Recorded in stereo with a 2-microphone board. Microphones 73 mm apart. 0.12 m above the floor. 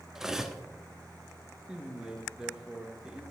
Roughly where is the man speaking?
Centre.